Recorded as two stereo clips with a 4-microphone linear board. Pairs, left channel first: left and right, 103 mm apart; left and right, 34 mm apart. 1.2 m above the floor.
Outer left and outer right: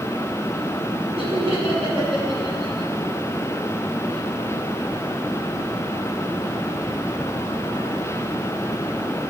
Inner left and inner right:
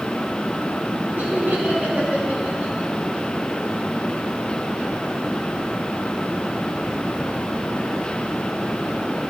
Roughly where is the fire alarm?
I don't hear a fire alarm.